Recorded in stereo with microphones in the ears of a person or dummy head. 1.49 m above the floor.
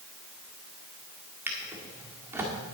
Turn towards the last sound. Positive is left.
turn(degrees=-20)  # may be behind; listen again after turning